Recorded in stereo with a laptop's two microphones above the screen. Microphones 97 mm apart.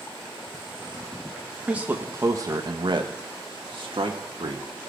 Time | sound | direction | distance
1.7 | a man speaking | 10° right (ahead or behind) | 0.9 m